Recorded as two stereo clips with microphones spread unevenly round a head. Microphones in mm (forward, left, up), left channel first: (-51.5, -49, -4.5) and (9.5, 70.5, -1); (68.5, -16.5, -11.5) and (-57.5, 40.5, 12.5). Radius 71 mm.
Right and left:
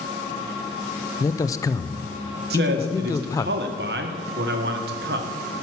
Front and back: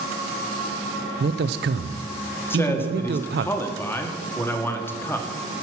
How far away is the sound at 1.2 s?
About 0.5 m.